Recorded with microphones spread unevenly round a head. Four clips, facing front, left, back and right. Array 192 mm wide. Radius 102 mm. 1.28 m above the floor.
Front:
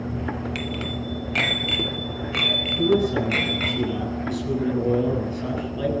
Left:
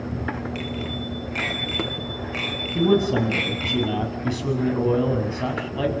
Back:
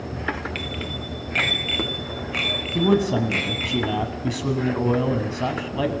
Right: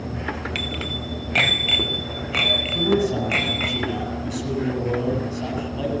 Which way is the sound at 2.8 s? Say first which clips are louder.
Left 2 dB, back 1 dB; 160° left.